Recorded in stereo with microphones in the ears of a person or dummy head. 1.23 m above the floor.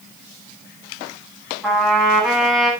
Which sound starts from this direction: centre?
A trumpet, at 1.6 s.